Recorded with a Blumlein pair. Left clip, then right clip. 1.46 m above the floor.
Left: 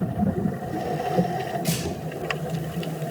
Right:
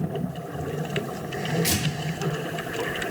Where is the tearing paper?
45° right, 3 m.